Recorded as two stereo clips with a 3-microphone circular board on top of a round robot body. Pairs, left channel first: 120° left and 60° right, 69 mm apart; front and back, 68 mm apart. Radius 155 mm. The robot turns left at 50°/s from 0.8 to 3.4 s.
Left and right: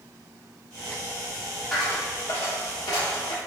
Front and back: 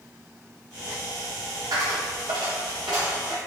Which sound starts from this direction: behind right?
A dropped coin, at 1.7 s.